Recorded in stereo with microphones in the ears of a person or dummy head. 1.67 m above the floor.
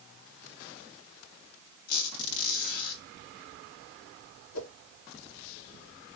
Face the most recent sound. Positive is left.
turn(degrees=80)